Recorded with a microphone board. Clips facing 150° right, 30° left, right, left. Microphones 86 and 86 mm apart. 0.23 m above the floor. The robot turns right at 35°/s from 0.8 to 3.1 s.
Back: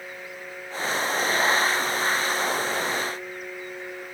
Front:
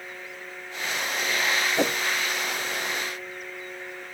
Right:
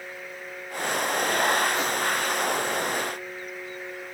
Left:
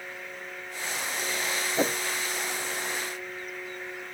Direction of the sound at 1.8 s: 30° left.